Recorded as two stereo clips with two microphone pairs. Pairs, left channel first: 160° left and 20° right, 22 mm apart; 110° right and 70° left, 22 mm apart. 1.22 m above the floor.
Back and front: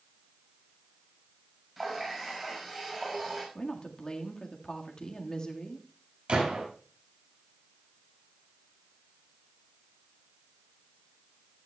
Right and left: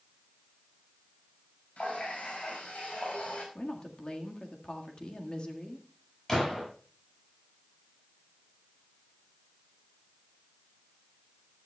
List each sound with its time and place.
1.8 s a running tap: 100° right, 5.5 m
3.5 s a woman speaking: 150° right, 1.8 m
6.3 s a gunshot: 40° right, 7 m